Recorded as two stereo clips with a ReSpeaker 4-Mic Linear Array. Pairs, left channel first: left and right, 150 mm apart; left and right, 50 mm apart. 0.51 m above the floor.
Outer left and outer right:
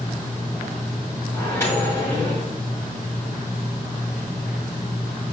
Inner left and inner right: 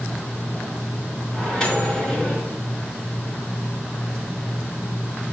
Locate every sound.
1.3 s a microwave: 15° left (ahead or behind), 3.5 m